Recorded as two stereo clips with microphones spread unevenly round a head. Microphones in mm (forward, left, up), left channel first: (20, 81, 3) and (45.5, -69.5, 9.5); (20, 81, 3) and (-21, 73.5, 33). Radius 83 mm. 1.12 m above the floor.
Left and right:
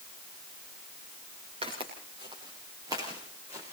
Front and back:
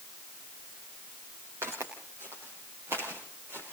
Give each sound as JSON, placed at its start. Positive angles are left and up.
{"t": 1.6, "sound": "footsteps", "azimuth_deg": -140, "distance_m": 5.5}